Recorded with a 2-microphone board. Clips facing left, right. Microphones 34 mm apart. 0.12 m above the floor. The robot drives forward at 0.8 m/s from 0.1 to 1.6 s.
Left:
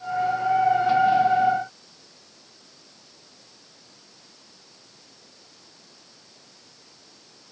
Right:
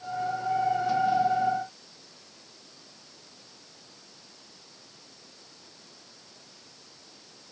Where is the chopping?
No chopping in this recording.